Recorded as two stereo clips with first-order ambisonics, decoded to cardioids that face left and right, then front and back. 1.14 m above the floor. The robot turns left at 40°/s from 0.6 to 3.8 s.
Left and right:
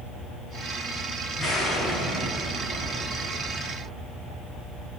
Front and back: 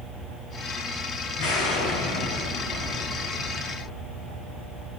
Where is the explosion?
20° left, 4 m; by 4.7 s 75° right, 4 m.